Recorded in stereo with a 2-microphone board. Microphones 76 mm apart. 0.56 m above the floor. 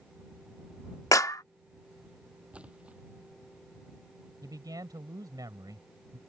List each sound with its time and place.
1.1 s a clap: 45° left (ahead or behind)
2.5 s a splash: 15° right (ahead or behind)
4.4 s a man speaking: 55° right (ahead or behind)